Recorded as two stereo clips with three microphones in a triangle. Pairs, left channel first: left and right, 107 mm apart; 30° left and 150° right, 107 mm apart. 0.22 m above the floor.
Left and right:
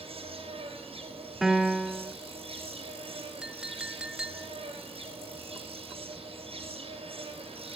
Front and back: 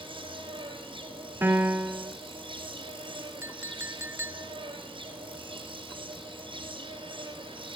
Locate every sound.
0.0 s an insect: 115° right, 3.5 m
1.4 s a piano: 170° right, 1.0 m
3.4 s a clink: 160° right, 0.6 m